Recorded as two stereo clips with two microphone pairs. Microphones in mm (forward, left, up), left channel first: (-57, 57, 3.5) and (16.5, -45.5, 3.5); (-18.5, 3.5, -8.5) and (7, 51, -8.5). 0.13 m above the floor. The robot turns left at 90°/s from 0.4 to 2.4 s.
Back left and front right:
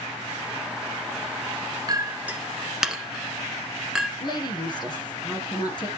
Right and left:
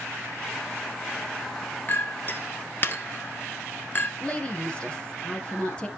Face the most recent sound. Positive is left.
turn(degrees=175)